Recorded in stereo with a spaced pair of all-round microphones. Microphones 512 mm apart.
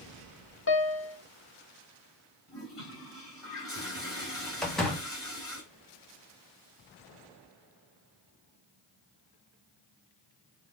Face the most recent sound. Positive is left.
turn(degrees=0)  # may be behind; listen again after turning